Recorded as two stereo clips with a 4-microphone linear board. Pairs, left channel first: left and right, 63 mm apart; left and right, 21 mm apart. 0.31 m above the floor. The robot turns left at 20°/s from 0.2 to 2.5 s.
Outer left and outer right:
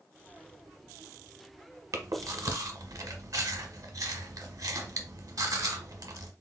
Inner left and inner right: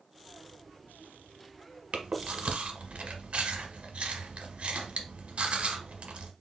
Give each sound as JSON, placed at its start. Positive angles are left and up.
{"t": 1.9, "sound": "chewing", "side_deg": -65, "distance_m": 0.9}